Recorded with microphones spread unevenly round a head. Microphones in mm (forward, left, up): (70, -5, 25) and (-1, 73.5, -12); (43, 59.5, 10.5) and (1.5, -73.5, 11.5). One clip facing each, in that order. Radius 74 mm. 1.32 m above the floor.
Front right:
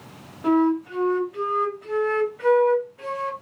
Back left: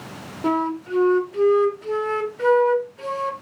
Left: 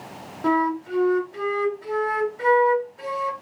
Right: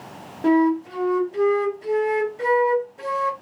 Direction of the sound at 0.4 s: 155° right.